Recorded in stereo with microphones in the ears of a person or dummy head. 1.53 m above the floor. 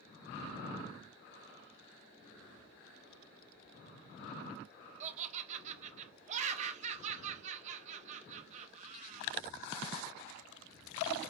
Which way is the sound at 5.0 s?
35° right (ahead or behind).